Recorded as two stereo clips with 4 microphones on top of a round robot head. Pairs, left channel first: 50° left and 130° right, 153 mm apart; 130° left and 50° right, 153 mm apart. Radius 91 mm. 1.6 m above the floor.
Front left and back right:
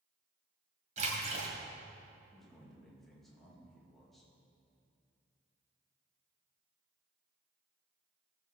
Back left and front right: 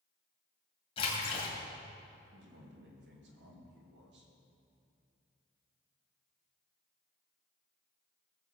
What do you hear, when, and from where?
1.0 s a splash: 175° right, 2 m
2.3 s a man speaking: 40° right, 2.5 m